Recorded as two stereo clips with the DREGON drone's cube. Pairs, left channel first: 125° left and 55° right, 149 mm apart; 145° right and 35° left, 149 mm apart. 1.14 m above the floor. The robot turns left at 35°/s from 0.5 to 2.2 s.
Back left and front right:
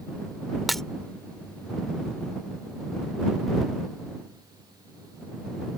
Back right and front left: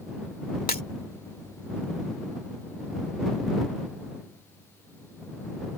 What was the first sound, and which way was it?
Breaking glass, 145° right.